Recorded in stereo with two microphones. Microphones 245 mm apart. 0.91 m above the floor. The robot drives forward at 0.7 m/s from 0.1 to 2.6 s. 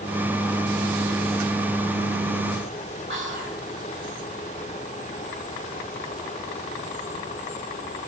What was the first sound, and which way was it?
Whispering, 50° right (ahead or behind).